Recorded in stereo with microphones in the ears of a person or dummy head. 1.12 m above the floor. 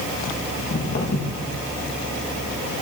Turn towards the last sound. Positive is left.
turn(degrees=55)  # may be behind; listen again after turning